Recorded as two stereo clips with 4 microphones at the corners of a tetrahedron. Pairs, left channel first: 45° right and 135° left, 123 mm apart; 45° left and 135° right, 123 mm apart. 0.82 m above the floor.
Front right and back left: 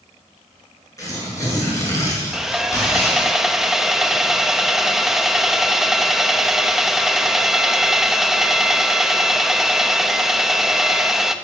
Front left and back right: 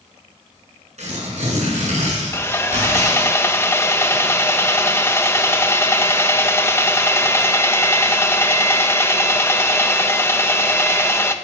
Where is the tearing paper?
110° right, 7.5 m.